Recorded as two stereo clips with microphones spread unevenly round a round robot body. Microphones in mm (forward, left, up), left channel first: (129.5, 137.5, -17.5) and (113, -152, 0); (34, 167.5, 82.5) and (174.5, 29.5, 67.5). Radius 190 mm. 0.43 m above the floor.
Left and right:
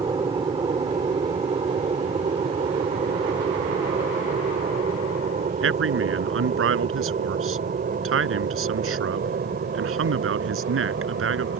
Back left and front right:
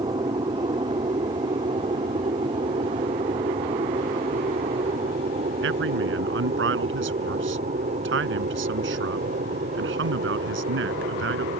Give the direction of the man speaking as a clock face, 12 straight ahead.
2 o'clock.